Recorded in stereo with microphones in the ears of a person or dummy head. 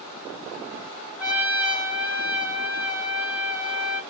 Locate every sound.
1.2 s a trumpet: 5° right (ahead or behind), 1.1 m